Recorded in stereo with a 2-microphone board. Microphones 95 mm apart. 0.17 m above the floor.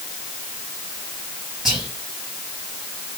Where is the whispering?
5° right (ahead or behind), 4 m.